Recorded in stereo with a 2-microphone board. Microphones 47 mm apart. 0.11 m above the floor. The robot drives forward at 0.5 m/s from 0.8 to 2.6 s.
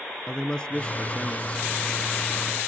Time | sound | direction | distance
0.3 | a man speaking | 20° left (ahead or behind) | 1.2 m